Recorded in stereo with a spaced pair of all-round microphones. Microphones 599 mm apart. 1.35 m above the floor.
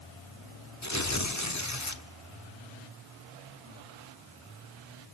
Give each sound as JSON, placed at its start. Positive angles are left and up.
{"t": 0.8, "sound": "tearing paper", "side_deg": 30, "distance_m": 1.4}